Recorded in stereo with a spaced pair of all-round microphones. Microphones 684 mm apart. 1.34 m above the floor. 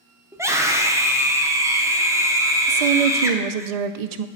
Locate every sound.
0.3 s a scream: 5° right (ahead or behind), 0.7 m
2.7 s a woman speaking: 65° right (ahead or behind), 0.5 m